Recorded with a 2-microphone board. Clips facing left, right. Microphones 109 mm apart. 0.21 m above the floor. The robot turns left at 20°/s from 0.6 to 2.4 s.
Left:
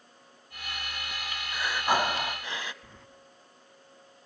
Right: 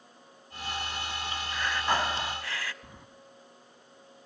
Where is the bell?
No bell in this recording.